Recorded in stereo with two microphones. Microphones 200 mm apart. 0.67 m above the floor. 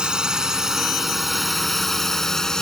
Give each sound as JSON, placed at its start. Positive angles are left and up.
{"t": 0.0, "sound": "a drone", "side_deg": -5}